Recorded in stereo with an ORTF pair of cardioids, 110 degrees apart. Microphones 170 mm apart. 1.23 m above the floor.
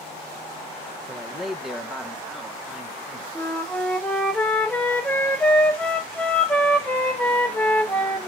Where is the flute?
5° left, 1.7 m.